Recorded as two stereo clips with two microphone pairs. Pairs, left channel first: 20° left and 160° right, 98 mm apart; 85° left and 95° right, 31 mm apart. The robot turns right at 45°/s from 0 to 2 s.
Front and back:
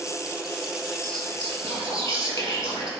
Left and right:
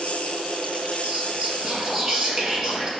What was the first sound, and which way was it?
Whispering, 60° right.